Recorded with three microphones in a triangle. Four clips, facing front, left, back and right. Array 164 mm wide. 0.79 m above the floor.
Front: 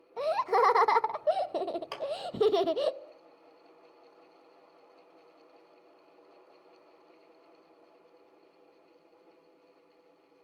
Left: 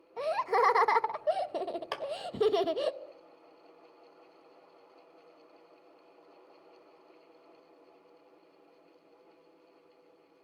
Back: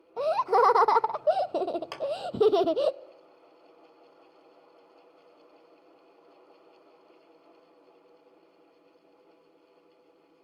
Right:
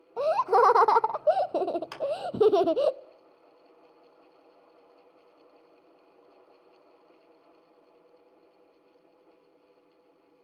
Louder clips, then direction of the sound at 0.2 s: Right 6 dB, back 3 dB; 120° right.